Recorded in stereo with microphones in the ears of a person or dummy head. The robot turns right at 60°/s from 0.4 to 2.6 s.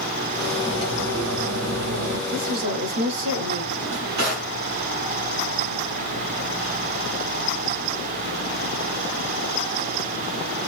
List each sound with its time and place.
0.6 s cutlery clinking: 170° right, 0.8 m; by 2.2 s 70° right, 0.8 m
2.3 s a woman speaking: 90° right, 2.5 m; by 3.6 s 70° right (ahead or behind), 2.5 m
3.7 s a drawer: 75° right (ahead or behind), 3.5 m